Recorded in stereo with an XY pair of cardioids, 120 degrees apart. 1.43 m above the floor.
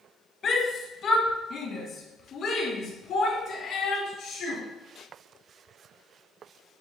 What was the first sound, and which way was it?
A shout, 40° left.